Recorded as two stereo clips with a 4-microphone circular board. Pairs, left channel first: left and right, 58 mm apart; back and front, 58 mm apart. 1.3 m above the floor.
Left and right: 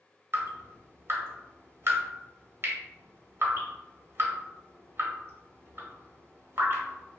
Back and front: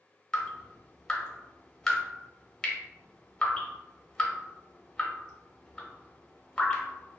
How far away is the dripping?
About 0.7 m.